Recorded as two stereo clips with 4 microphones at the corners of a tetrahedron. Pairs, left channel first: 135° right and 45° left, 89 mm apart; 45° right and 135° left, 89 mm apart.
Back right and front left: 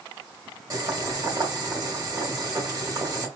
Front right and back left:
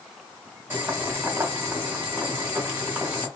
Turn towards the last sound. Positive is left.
turn(degrees=75)